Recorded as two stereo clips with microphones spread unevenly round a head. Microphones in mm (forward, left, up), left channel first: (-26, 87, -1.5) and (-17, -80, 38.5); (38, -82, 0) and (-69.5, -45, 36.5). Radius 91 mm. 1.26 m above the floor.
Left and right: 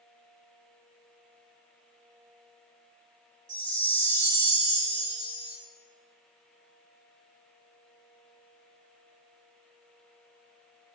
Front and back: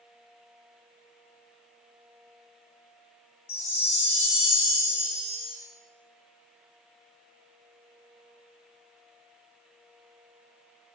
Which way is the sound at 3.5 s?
40° right.